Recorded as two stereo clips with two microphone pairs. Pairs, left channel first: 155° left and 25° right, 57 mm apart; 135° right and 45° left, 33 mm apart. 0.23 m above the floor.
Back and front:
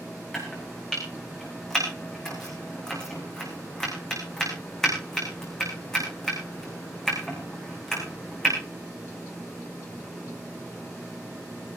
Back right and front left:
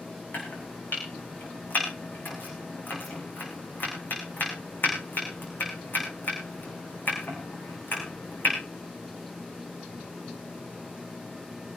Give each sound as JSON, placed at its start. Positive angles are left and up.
{"t": 0.3, "sound": "chopping", "azimuth_deg": -125, "distance_m": 7.5}